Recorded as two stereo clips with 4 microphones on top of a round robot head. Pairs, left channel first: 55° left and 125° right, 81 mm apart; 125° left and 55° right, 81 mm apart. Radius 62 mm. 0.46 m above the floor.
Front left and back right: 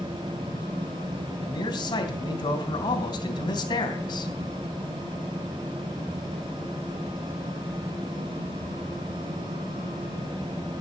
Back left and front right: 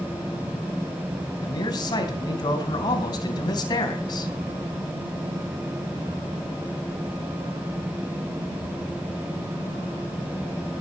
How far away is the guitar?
I don't hear a guitar.